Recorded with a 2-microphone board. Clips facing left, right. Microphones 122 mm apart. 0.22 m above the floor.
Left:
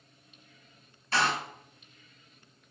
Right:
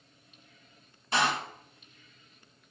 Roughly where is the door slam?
Centre.